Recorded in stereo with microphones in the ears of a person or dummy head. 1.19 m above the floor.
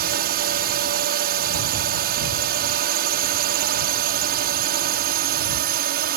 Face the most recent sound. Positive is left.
turn(degrees=-50)  # may be behind; listen again after turning